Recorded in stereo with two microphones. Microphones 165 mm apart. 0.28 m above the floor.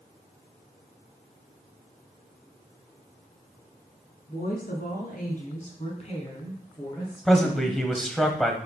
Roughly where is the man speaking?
Centre.